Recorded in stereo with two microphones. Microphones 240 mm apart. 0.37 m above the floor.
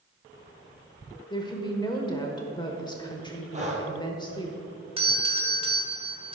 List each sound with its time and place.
1.3 s a woman speaking: 15° left (ahead or behind), 1.1 m
3.5 s breathing: 30° right (ahead or behind), 1.7 m
5.0 s a doorbell: 20° right (ahead or behind), 1.4 m